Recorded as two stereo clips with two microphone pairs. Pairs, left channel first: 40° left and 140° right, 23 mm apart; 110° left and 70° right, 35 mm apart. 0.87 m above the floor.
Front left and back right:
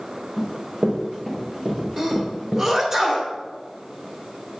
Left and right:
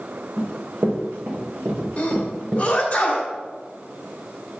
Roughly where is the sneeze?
Behind.